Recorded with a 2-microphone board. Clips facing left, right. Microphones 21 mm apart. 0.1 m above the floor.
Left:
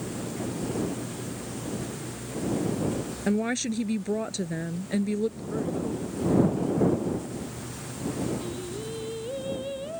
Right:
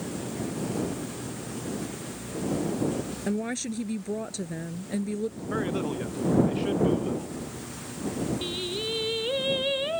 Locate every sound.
3.3 s a woman speaking: 20° left (ahead or behind)
5.5 s a man speaking: 85° right
8.4 s singing: 65° right (ahead or behind)